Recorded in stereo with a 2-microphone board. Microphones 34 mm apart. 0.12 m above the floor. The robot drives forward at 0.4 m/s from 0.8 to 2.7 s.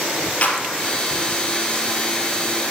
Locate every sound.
0.4 s a clap: 40° left (ahead or behind), 3 m